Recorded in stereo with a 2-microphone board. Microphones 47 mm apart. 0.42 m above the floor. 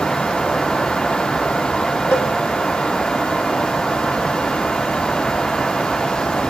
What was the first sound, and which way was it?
A cowbell, 70° left (ahead or behind).